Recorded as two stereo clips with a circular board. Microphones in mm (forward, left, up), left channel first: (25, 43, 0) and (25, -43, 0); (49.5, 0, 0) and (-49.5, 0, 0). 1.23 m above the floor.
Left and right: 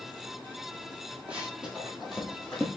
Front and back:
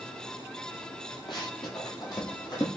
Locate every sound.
1.3 s running footsteps: 15° right, 1.9 m; by 2.7 s 10° left, 1.6 m